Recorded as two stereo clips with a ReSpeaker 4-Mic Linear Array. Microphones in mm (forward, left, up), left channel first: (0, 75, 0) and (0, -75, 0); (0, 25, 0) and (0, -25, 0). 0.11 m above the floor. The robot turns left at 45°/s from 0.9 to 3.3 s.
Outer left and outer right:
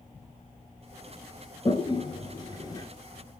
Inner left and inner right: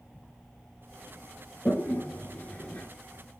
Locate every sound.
1.6 s a toilet flushing: 35° left (ahead or behind), 1.8 m; by 2.9 s 25° left (ahead or behind), 1.8 m